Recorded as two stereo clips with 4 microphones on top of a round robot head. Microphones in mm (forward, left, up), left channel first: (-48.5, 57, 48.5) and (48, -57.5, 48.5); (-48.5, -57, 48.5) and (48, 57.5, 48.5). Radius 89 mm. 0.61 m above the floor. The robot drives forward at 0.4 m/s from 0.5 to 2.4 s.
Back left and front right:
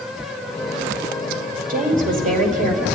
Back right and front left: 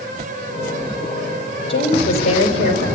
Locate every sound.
1.7 s a woman speaking: 80° right, 3.5 m; by 2.9 s 85° right, 3 m